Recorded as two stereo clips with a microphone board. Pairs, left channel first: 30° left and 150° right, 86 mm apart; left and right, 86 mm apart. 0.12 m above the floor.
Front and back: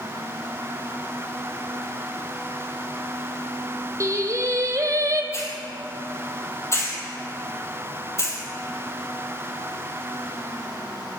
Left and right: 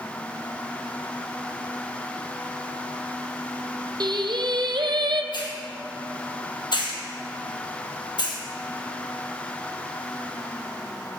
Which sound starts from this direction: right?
Singing, at 4.0 s.